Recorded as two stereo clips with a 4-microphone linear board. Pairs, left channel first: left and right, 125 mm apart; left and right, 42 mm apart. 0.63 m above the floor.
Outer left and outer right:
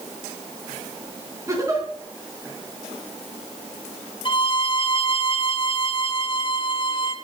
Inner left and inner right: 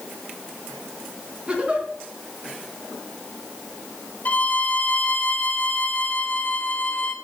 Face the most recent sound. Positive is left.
turn(degrees=45)  # may be behind; listen again after turning